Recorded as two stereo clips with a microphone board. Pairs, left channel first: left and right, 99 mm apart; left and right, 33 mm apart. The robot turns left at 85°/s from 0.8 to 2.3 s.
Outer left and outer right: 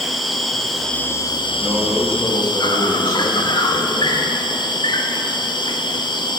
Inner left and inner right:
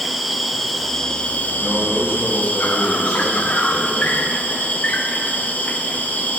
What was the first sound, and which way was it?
An insect, straight behind.